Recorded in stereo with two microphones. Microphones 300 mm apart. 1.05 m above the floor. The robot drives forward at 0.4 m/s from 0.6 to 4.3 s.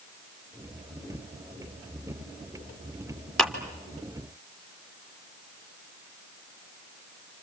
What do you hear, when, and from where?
3.4 s a clap: centre (ahead or behind), 2.5 m